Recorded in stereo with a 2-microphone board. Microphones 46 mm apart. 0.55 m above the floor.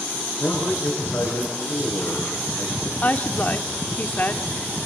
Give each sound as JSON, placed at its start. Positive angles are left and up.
{"t": 0.4, "sound": "a man speaking", "side_deg": 75, "distance_m": 6.5}
{"t": 3.0, "sound": "a woman speaking", "side_deg": 35, "distance_m": 1.2}